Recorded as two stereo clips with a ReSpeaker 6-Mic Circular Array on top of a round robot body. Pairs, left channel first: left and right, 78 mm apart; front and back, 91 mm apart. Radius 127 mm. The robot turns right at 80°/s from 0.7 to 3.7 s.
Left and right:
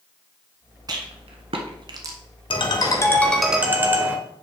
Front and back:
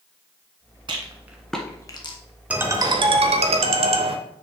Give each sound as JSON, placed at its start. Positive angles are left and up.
{"t": 0.9, "sound": "a rattle", "azimuth_deg": -140, "distance_m": 1.1}
{"t": 2.5, "sound": "a ringtone", "azimuth_deg": 105, "distance_m": 1.0}